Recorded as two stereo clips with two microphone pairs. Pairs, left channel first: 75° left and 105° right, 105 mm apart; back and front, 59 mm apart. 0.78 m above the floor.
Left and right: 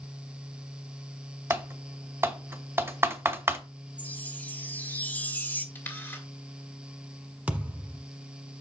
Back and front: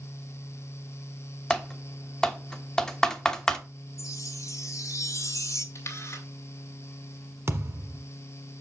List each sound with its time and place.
1.5 s typing on a keyboard: 110° right, 0.9 m
4.0 s a chime: 150° left, 0.8 m
5.8 s a camera shutter: 145° left, 2 m
7.5 s a thud: 30° right, 1.3 m